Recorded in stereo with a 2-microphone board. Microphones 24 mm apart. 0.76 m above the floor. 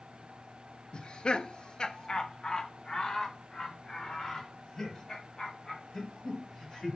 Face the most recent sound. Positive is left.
turn(degrees=25)  # may be behind; listen again after turning